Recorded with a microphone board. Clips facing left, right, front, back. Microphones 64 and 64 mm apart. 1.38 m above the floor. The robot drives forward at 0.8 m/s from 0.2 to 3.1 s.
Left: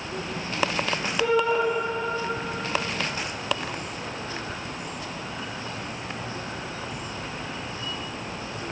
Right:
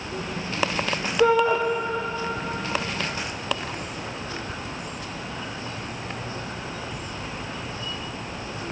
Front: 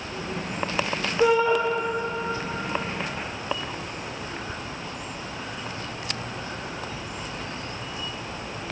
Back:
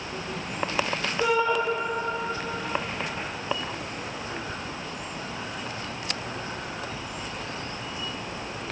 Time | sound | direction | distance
1.2 | a shout | 65° right | 0.9 m